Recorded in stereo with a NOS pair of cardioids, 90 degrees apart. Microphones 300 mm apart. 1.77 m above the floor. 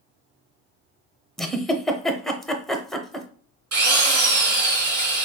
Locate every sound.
1.4 s a giggle: straight ahead, 0.7 m
3.7 s a drill: 50° right, 2.5 m